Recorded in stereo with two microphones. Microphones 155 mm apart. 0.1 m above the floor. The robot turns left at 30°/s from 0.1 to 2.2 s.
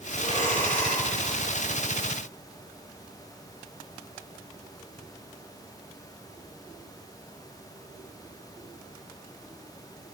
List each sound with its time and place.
0.2 s breathing: 45° right (ahead or behind), 8 m; by 1.0 s 70° right (ahead or behind), 8 m